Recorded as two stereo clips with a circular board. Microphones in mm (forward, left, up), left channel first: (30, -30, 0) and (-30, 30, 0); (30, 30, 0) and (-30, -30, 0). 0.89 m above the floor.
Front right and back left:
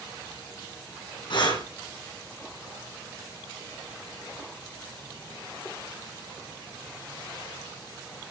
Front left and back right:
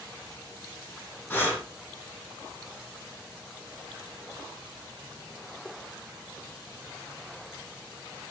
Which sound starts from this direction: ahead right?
Breathing, at 1.3 s.